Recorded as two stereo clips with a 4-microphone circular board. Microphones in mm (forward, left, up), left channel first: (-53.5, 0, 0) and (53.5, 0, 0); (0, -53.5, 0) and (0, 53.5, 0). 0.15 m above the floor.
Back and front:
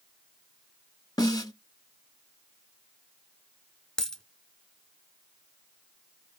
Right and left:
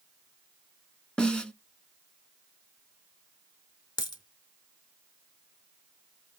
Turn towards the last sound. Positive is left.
turn(degrees=-100)